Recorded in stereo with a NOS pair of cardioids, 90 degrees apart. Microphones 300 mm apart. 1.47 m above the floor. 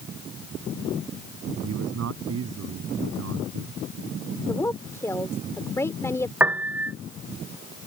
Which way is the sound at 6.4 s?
5° right.